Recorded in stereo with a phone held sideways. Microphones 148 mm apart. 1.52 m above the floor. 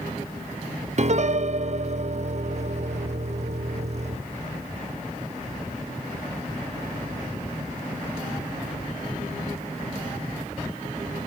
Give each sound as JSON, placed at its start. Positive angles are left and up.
{"t": 1.0, "sound": "a piano", "side_deg": -50, "distance_m": 0.6}